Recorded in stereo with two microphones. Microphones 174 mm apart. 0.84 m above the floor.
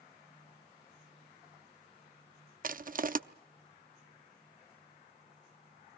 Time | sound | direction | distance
2.6 | crushing | 55° right (ahead or behind) | 0.6 m